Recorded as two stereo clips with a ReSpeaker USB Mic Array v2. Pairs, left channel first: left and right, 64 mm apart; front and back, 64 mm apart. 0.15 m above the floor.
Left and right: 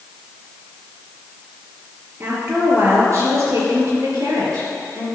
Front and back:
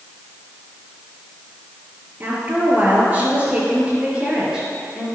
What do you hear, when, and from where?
2.2 s a woman speaking: 130° right, 3 m; by 5.1 s 105° right, 4 m